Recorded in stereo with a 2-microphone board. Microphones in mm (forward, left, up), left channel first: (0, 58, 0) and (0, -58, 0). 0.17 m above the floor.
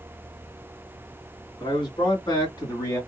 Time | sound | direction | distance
1.6 | a man speaking | 45° left (ahead or behind) | 2 m